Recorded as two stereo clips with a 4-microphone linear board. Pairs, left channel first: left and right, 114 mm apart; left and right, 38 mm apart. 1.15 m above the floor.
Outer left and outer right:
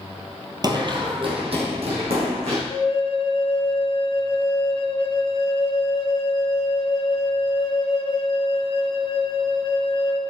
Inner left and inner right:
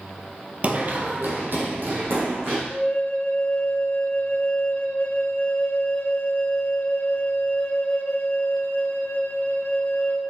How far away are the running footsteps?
About 1.5 m.